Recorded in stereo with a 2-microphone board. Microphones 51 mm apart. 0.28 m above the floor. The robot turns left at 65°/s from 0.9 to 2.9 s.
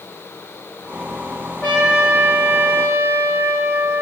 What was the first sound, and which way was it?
A trumpet, 35° left.